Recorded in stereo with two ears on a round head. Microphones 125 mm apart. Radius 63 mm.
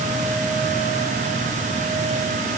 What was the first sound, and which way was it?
Only background noise.